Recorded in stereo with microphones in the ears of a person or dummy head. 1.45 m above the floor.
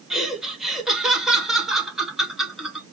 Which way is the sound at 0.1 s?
Centre (ahead or behind).